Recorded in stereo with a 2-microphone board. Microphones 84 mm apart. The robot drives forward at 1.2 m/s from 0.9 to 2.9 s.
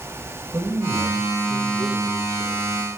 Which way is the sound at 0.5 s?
35° right (ahead or behind).